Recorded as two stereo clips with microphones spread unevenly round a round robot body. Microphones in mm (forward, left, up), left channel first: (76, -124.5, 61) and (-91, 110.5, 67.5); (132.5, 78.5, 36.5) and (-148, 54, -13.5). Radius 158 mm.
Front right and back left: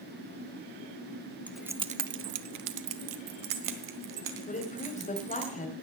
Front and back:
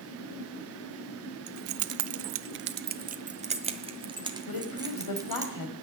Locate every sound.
1.5 s keys jangling: 140° right, 0.8 m; by 5.5 s 105° left, 3 m
4.5 s a woman speaking: 10° left, 3 m